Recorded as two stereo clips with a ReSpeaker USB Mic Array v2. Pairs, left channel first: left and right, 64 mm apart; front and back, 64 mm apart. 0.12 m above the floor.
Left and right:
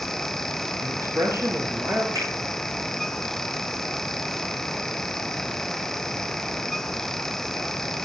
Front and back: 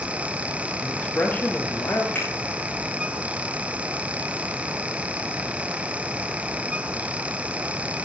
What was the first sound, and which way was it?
A man speaking, 70° right.